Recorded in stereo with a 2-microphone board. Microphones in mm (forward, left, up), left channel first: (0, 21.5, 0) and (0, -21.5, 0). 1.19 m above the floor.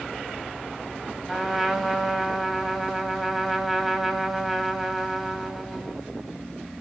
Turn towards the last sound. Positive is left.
turn(degrees=-5)  # may be behind; listen again after turning